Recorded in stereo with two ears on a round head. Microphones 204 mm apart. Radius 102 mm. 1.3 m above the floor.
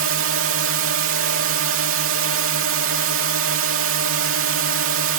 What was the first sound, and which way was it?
A drone, 60° right (ahead or behind).